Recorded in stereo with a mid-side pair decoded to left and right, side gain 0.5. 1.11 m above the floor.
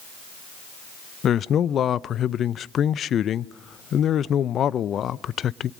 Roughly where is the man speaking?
Ahead left.